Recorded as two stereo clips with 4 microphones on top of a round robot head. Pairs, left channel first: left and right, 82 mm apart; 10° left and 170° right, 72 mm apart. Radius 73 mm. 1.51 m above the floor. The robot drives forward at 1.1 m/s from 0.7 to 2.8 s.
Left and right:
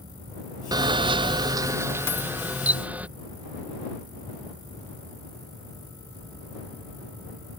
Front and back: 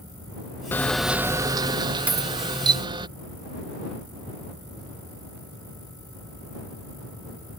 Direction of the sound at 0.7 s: 55° right.